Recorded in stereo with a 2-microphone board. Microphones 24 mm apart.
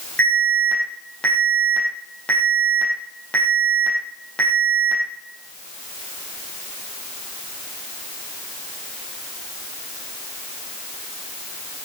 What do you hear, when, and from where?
0.2 s an alarm: 80° left, 6 m